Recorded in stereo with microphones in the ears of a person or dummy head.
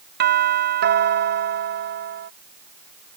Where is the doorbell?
50° right (ahead or behind).